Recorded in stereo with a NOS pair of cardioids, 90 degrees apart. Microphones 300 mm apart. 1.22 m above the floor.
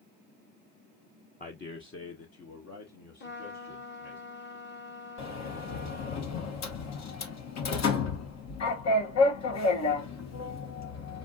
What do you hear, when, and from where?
1.4 s a man speaking: 30° left, 0.8 m; by 4.2 s 70° left, 2.5 m
3.2 s a trumpet: 35° left, 1.2 m
5.2 s a sliding door: 60° left, 1.3 m